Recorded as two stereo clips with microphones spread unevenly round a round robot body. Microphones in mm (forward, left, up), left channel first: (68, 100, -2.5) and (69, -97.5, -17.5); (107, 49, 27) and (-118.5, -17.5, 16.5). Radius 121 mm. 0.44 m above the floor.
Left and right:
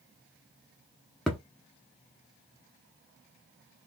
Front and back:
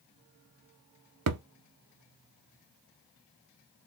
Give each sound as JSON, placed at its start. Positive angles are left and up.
{"t": 1.3, "sound": "a thud", "azimuth_deg": 180, "distance_m": 0.5}